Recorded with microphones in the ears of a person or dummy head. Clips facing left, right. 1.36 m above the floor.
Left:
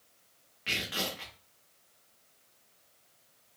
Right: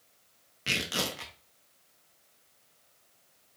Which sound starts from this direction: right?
Tearing paper, at 0.7 s.